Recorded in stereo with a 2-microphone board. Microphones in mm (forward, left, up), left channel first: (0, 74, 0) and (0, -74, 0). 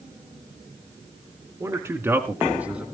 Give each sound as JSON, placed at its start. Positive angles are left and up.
{"t": 1.6, "sound": "a man speaking", "side_deg": -20, "distance_m": 1.7}